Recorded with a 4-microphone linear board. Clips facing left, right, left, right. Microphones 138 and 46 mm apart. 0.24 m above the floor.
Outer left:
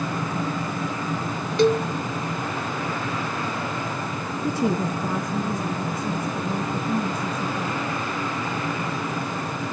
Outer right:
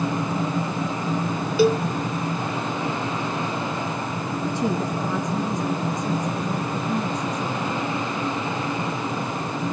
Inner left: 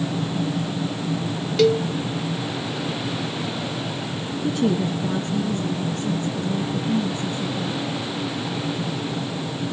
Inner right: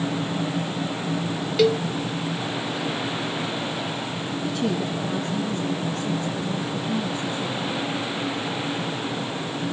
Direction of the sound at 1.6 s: 5° right (ahead or behind).